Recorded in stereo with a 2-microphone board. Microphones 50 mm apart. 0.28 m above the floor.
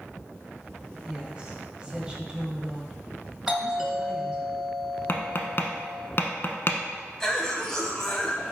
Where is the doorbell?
15° right (ahead or behind), 1.7 m.